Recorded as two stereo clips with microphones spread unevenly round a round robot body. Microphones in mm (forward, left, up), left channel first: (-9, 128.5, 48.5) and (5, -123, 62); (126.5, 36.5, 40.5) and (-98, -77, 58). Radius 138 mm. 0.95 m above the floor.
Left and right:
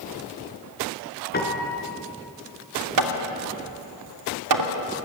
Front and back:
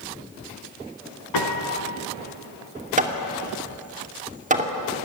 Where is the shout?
No shout in this recording.